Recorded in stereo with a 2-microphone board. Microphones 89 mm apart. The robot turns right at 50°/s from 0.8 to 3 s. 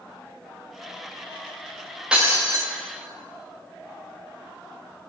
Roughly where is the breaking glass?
Centre.